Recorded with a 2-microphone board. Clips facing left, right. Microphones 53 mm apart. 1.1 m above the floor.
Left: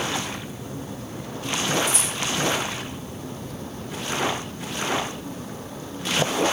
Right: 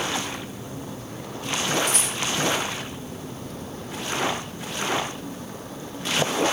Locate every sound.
1.9 s a rattle: 70° right (ahead or behind), 4 m